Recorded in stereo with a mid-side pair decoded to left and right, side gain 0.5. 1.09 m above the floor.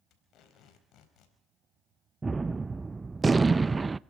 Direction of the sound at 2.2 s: 25° right.